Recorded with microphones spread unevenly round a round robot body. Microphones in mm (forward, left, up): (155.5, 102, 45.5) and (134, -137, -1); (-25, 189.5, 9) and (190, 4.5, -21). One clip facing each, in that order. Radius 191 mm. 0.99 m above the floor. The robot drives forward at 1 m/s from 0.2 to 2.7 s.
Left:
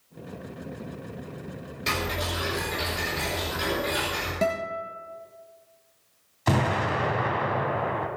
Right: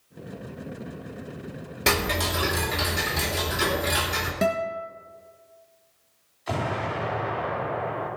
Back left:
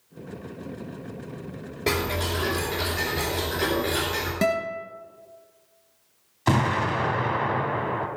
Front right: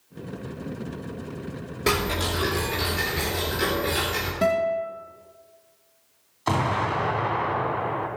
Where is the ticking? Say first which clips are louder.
Right 5 dB, front right 1 dB; 115° right, 2.5 m; by 4.3 s 130° right, 3 m.